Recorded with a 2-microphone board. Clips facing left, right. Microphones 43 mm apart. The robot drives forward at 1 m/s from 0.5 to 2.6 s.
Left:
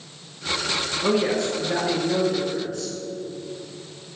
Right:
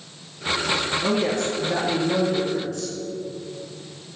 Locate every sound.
1.0 s a woman speaking: 20° left (ahead or behind), 1.5 m; by 2.9 s 10° left (ahead or behind), 3 m